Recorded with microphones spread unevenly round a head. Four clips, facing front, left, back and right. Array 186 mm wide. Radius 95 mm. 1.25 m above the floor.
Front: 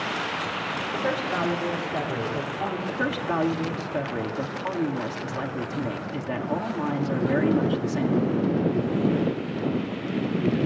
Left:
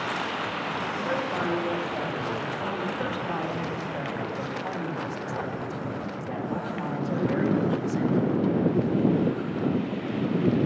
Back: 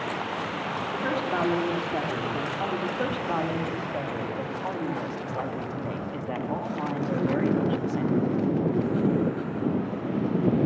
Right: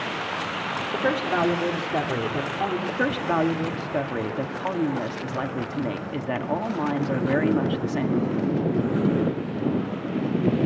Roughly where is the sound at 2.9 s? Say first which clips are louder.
Right 5 dB, front 1 dB; ahead right.